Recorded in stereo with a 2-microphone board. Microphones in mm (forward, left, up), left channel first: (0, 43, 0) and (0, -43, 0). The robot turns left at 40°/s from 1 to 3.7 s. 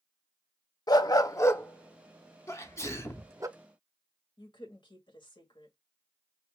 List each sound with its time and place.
0.9 s a dog barking: 50° left (ahead or behind), 0.6 m; by 3.5 s 40° right (ahead or behind), 0.6 m
2.5 s a sneeze: 90° left, 0.9 m; by 3.3 s 55° left, 0.9 m
4.4 s a woman speaking: 65° left (ahead or behind), 2 m